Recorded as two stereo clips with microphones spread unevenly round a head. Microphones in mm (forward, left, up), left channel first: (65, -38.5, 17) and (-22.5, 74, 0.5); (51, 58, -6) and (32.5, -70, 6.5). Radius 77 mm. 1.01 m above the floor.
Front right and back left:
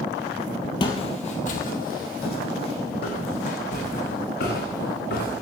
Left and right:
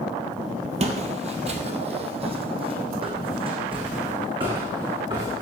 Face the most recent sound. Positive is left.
turn(degrees=-45)